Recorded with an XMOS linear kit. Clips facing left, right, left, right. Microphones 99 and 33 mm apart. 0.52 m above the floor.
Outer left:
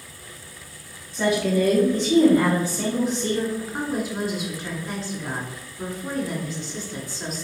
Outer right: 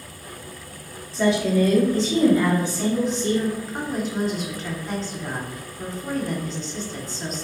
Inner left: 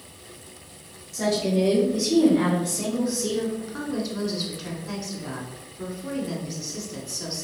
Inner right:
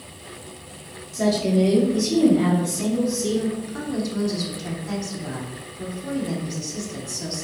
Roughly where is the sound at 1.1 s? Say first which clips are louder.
Outer right 1 dB, inner right 3 dB; centre.